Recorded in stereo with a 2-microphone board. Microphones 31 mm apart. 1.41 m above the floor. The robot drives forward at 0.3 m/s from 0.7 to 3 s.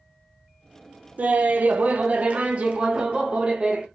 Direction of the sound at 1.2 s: 50° right (ahead or behind).